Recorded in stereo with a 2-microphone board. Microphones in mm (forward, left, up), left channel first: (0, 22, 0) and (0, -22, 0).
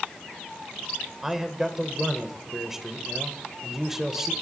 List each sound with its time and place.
1.2 s a man speaking: 10° right (ahead or behind), 1.1 m